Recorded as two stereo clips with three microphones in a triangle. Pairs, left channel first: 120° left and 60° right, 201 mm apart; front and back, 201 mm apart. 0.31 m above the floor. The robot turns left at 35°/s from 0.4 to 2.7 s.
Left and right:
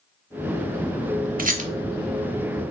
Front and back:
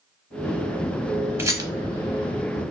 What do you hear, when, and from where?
1.4 s a rattle: 105° right, 0.6 m; by 1.7 s 115° right, 0.6 m